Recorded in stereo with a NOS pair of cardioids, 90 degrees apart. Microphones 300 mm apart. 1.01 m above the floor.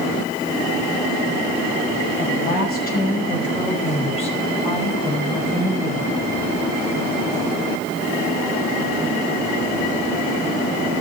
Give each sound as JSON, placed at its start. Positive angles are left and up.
{"t": 2.2, "sound": "a woman speaking", "azimuth_deg": 35, "distance_m": 6.0}